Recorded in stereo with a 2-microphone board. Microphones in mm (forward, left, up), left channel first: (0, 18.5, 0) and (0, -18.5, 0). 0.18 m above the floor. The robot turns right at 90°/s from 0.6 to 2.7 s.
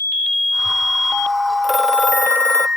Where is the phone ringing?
Straight ahead; by 2.7 s 95° left.